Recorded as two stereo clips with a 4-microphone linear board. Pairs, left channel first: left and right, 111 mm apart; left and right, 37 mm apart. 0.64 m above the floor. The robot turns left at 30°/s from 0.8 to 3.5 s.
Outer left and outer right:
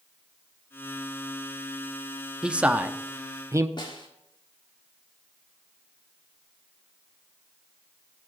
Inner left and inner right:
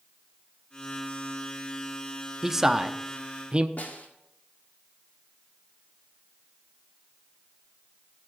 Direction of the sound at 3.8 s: 45° left (ahead or behind).